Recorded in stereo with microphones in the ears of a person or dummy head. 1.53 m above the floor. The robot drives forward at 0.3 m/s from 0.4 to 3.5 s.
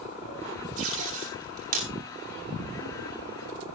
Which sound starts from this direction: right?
Tape being pulled, at 0.8 s.